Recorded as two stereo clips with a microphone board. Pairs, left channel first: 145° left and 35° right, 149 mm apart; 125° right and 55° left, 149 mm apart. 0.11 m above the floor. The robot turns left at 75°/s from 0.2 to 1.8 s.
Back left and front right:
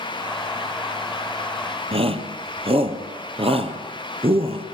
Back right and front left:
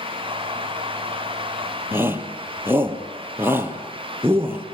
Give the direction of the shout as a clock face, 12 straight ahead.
12 o'clock.